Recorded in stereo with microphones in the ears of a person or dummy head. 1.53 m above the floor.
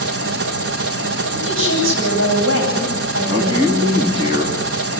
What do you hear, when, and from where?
0.0 s an engine running: 60° right (ahead or behind), 1.2 m
1.3 s a woman speaking: 75° right (ahead or behind), 9 m
3.2 s a man speaking: 40° right (ahead or behind), 3 m